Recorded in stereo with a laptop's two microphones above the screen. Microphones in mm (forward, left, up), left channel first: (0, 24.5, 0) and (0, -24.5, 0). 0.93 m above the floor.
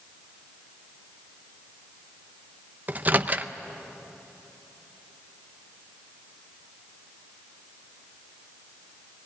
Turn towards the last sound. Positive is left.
turn(degrees=-30)  # may be behind; listen again after turning